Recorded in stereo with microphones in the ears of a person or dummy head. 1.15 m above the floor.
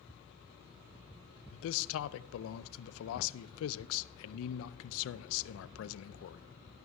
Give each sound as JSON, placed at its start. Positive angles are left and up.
{"t": 1.5, "sound": "a man speaking", "side_deg": 80, "distance_m": 0.5}